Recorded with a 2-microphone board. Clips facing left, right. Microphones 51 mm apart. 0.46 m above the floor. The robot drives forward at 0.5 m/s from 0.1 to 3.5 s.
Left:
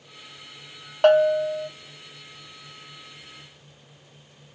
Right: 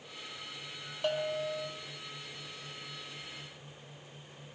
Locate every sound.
1.0 s a bell: 70° left (ahead or behind), 0.6 m; by 1.7 s 45° left (ahead or behind), 0.7 m